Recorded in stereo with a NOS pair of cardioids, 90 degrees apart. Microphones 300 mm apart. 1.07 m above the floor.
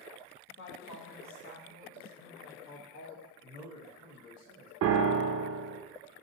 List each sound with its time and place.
0.5 s a woman speaking: 45° left, 0.9 m
3.4 s a man speaking: 70° left, 1.3 m
4.8 s a piano: 55° right, 0.5 m